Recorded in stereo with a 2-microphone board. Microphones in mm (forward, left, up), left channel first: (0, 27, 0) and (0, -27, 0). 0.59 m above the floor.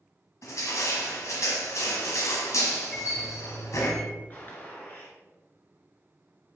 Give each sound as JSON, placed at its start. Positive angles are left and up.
{"t": 0.4, "sound": "crushing", "side_deg": 75, "distance_m": 1.5}
{"t": 2.9, "sound": "a microwave", "side_deg": 20, "distance_m": 2.5}
{"t": 4.3, "sound": "a gunshot", "side_deg": 40, "distance_m": 1.7}